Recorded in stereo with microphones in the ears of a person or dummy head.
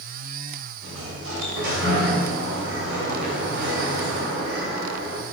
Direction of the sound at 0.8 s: 75° right (ahead or behind).